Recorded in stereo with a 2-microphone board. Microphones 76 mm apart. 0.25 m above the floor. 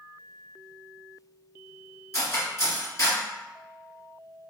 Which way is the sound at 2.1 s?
40° left (ahead or behind).